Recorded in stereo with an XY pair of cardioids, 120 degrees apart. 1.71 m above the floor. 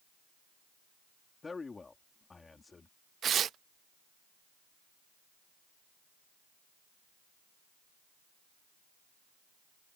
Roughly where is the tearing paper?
Ahead right.